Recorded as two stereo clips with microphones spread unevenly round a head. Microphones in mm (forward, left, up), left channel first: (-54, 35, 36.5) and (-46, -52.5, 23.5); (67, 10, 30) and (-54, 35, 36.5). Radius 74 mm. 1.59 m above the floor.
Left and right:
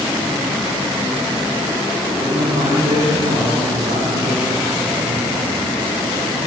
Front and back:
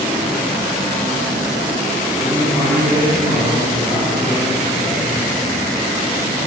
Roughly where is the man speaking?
Right.